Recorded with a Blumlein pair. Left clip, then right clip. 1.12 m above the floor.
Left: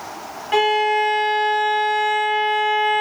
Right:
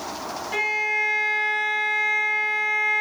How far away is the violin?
About 0.7 m.